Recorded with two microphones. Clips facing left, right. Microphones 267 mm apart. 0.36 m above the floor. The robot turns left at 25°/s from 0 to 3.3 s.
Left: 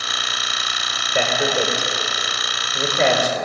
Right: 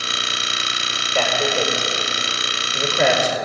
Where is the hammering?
I don't hear hammering.